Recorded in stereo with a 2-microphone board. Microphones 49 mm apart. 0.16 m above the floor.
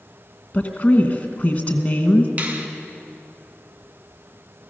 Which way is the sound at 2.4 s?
35° right (ahead or behind).